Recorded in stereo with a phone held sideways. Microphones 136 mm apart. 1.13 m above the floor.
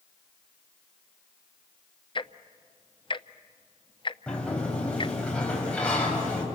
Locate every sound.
2.1 s ticking: 40° left (ahead or behind), 0.6 m
4.3 s a sliding door: 10° left (ahead or behind), 4.5 m